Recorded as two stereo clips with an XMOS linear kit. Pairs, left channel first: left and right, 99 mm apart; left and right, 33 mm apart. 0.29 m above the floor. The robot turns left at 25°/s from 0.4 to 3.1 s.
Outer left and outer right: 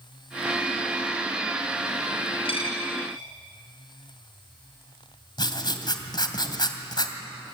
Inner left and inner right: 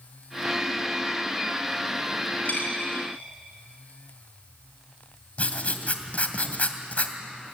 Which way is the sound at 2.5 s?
60° left (ahead or behind).